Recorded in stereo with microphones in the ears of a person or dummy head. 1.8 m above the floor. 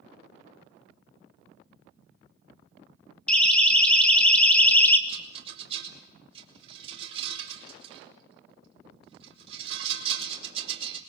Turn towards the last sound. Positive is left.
turn(degrees=-35)  # may be behind; listen again after turning